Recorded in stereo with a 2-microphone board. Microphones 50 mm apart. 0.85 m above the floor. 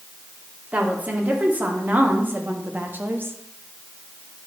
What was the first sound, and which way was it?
A woman speaking, 30° right (ahead or behind).